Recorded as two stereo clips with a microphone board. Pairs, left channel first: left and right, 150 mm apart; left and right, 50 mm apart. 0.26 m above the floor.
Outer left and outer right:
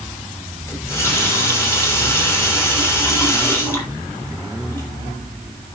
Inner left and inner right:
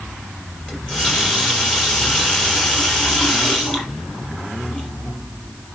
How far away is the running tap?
About 4.5 m.